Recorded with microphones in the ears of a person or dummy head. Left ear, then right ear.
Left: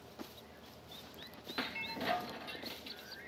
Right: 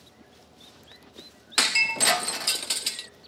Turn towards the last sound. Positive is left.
turn(degrees=-45)  # may be behind; listen again after turning